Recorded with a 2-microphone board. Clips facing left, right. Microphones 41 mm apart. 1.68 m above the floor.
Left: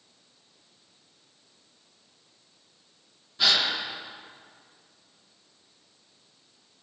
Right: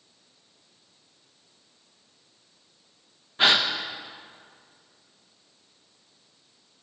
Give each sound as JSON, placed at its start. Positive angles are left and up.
{"t": 3.4, "sound": "a gasp", "side_deg": -35, "distance_m": 0.9}